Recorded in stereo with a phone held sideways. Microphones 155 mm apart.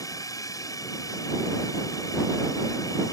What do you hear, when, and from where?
0.0 s a drone: 20° left (ahead or behind)